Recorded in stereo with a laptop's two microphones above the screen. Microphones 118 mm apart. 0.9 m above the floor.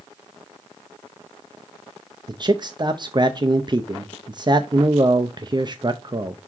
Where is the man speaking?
35° right (ahead or behind), 0.5 m.